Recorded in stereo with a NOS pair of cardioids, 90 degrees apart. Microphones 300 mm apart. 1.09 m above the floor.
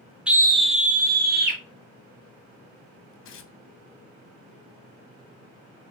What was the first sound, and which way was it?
A scream, 5° right.